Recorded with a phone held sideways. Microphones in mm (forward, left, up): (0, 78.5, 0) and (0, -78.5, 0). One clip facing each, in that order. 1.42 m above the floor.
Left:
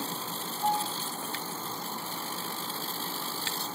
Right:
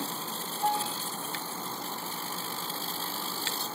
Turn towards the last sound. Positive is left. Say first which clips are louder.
# even
turn(degrees=-10)  # may be behind; listen again after turning